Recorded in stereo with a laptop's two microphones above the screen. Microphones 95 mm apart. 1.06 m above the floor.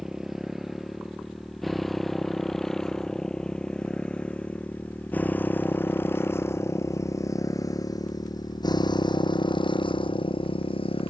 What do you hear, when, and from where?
0.0 s a motorcycle: 5° right (ahead or behind); by 11.1 s 75° left (ahead or behind)